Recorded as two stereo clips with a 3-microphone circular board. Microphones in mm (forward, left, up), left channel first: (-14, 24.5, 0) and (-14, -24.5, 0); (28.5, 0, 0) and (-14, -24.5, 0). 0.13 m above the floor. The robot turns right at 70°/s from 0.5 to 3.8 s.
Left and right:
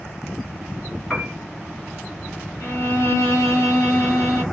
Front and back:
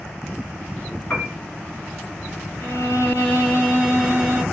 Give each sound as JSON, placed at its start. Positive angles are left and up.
{"t": 1.1, "sound": "a piano", "azimuth_deg": -5, "distance_m": 1.5}
{"t": 2.6, "sound": "a violin", "azimuth_deg": 50, "distance_m": 3.0}